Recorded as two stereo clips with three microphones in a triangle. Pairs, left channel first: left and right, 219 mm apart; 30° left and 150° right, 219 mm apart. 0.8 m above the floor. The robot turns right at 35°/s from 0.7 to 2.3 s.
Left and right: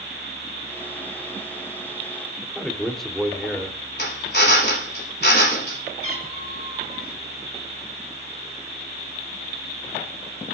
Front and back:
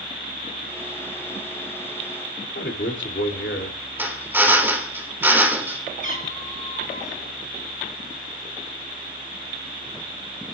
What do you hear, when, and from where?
2.4 s a man speaking: straight ahead, 2.5 m
4.0 s a drill: 130° left, 3 m
6.0 s a cat meowing: 80° left, 5 m